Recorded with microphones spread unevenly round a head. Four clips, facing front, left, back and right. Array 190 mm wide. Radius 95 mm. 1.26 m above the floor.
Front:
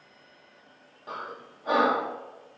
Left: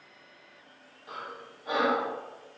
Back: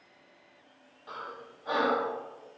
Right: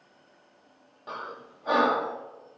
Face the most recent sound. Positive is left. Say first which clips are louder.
# right 3 dB, front 3 dB
turn(degrees=-40)